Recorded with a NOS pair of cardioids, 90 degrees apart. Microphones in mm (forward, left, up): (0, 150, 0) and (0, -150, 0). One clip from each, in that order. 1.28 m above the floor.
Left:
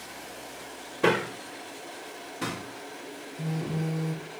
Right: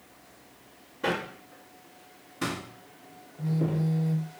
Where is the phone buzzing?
20° left, 1.0 m.